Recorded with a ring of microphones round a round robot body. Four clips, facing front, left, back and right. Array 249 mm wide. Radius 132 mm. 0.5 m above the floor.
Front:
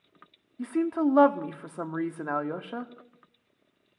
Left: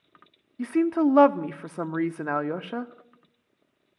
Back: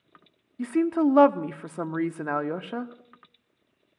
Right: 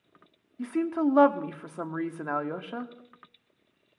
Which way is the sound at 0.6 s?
130° left.